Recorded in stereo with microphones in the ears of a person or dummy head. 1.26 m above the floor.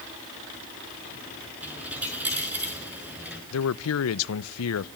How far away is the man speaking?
About 0.7 m.